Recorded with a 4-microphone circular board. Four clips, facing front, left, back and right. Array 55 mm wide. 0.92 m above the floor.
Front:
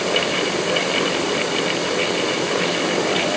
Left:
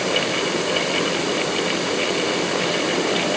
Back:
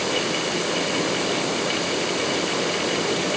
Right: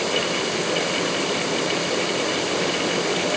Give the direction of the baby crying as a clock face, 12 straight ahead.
No baby crying in this recording.